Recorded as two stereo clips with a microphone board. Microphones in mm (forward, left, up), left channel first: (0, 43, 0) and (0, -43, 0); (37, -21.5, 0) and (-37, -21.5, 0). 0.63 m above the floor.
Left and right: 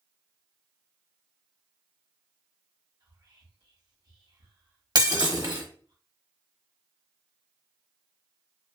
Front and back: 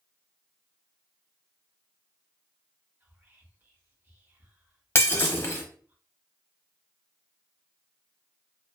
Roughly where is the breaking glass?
Ahead right.